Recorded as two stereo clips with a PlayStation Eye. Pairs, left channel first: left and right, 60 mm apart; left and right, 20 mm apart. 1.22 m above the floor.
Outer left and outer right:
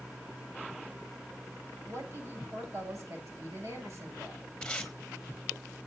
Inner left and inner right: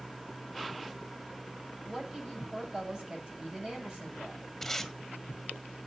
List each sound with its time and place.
1.9 s a woman speaking: 55° right (ahead or behind), 7 m
4.6 s tape being pulled: 10° left (ahead or behind), 1.8 m